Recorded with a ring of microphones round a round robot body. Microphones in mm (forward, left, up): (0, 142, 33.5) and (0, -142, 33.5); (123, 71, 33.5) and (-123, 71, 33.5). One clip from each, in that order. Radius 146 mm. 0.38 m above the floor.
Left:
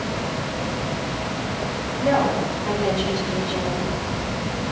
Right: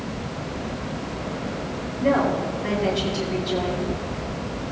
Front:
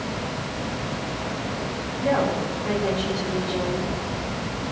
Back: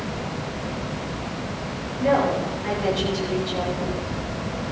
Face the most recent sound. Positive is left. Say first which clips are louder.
# left 1 dB, back 3 dB
turn(degrees=-135)